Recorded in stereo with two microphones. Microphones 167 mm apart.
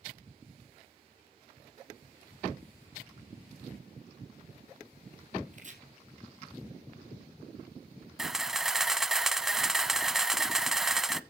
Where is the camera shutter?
Centre (ahead or behind), 0.6 m.